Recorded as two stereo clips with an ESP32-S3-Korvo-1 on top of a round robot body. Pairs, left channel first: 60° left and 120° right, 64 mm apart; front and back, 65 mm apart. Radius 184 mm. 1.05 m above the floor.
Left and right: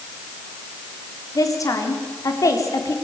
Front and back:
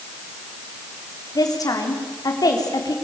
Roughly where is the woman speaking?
Ahead left.